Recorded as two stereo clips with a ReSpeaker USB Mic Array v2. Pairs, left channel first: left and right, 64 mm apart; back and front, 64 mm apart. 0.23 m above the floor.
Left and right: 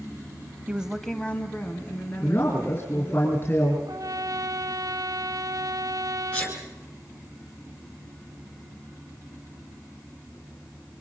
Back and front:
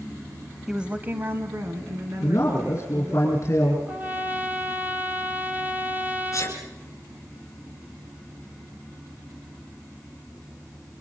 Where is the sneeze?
150° left, 2 m.